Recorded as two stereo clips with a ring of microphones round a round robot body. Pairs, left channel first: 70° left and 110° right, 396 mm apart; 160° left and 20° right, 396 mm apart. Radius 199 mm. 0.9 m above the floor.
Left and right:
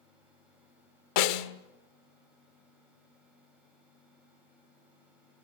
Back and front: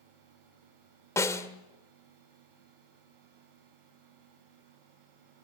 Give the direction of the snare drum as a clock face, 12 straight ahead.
10 o'clock.